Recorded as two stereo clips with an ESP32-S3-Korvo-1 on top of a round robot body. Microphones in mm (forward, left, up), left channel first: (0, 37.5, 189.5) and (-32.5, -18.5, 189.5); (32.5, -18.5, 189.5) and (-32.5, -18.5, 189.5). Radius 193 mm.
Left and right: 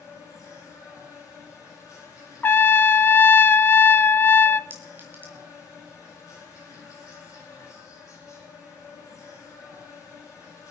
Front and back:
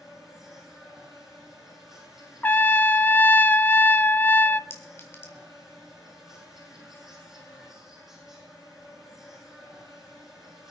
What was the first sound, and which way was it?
An insect, 95° left.